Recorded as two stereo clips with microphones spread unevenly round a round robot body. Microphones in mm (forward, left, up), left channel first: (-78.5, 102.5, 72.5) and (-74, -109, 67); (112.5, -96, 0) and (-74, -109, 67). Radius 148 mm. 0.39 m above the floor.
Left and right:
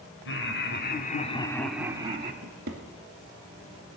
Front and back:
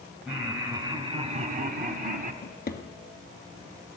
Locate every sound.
0.2 s laughter: 85° left, 2.5 m; by 2.3 s 130° right, 1.8 m
2.4 s a drawer: 35° right, 2 m